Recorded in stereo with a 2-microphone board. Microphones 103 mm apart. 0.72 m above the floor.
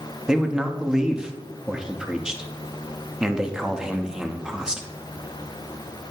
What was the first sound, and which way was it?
A man speaking, 5° right (ahead or behind).